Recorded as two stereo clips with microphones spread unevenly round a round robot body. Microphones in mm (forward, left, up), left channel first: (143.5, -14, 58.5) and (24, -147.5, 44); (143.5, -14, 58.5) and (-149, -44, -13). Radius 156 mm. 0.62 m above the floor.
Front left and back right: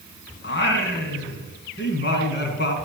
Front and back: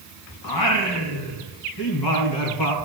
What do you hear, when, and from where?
0.4 s singing: 30° left, 3 m